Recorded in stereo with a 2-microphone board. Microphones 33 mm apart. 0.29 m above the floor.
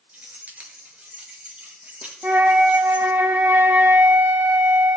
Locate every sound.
0.1 s keys jangling: 55° right (ahead or behind), 3 m; by 3.1 s 40° right (ahead or behind), 6 m
2.2 s a flute: 65° right (ahead or behind), 1.2 m